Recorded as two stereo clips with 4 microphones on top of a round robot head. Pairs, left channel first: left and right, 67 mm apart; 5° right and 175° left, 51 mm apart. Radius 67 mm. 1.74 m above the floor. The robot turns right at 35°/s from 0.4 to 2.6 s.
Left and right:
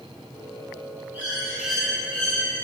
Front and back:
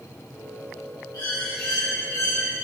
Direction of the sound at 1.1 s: 25° right.